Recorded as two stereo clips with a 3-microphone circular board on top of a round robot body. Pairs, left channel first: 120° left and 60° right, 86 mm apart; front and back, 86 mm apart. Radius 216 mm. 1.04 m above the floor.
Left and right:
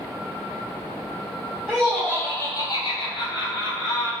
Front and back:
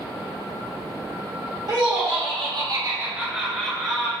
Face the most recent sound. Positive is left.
turn(degrees=80)